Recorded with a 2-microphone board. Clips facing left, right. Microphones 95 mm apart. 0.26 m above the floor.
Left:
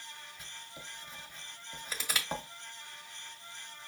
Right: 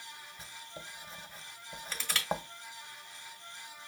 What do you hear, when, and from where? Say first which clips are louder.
0.4 s writing: right 2 dB; 30° right (ahead or behind), 0.7 m
1.9 s crushing: left 1 dB; 10° left (ahead or behind), 1.5 m